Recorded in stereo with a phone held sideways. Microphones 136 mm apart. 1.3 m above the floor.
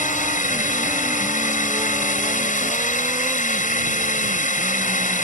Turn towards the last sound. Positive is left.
turn(degrees=70)  # may be behind; listen again after turning